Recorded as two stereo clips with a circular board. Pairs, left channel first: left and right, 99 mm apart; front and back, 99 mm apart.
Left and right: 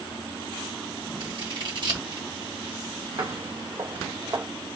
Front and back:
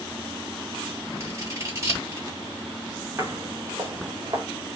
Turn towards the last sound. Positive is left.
turn(degrees=-150)